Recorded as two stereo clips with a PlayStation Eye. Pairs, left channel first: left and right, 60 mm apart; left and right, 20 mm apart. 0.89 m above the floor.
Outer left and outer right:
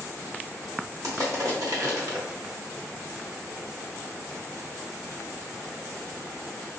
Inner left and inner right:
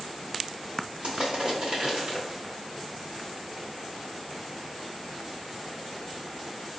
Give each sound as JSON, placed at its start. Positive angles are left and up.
{"t": 1.0, "sound": "crushing", "side_deg": -65, "distance_m": 1.3}